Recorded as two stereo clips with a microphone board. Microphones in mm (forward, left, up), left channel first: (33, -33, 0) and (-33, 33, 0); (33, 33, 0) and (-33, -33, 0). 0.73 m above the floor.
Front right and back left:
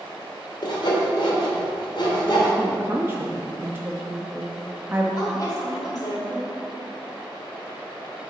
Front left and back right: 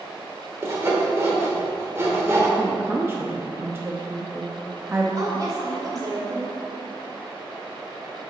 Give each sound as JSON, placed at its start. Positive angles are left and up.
{"t": 0.6, "sound": "sawing", "azimuth_deg": -75, "distance_m": 1.9}
{"t": 2.6, "sound": "a woman speaking", "azimuth_deg": 180, "distance_m": 0.7}
{"t": 5.2, "sound": "a woman speaking", "azimuth_deg": -90, "distance_m": 2.5}